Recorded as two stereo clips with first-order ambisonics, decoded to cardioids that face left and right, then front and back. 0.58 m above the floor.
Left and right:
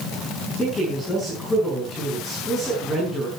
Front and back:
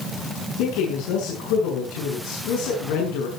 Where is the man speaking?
Straight ahead, 7 m.